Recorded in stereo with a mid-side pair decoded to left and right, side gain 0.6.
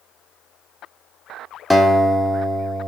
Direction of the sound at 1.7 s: Straight ahead.